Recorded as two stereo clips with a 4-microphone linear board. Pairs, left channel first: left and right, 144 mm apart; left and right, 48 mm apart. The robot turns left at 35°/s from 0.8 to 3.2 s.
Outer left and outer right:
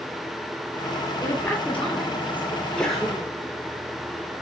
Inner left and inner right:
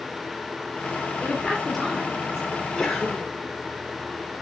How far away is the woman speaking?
About 2 m.